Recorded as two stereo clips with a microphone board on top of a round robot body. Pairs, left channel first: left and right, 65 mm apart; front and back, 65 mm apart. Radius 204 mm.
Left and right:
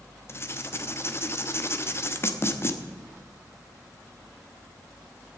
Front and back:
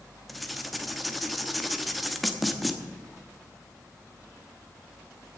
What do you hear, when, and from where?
0.3 s writing: 90° left, 1.4 m